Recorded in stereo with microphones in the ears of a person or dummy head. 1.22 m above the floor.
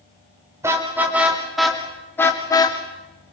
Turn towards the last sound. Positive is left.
turn(degrees=25)  # may be behind; listen again after turning